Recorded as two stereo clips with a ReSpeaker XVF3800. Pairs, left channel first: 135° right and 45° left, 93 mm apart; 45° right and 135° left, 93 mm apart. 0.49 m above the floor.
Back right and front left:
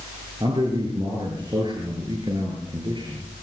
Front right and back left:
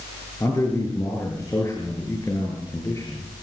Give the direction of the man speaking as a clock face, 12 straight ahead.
12 o'clock.